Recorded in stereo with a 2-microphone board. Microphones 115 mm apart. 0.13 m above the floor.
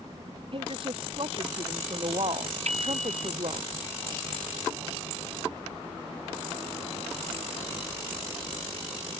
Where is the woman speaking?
50° right (ahead or behind).